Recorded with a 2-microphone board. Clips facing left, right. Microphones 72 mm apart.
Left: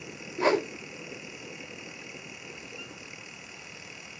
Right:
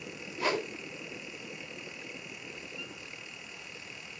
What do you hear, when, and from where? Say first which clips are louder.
0.4 s a whoosh: left 7 dB; 30° left (ahead or behind), 0.9 m